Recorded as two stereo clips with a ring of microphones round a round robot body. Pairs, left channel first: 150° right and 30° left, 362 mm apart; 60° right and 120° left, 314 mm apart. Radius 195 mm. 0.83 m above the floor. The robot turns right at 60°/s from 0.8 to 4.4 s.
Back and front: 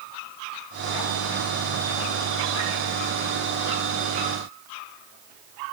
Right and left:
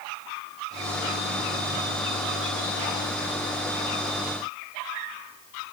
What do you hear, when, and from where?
Only background noise.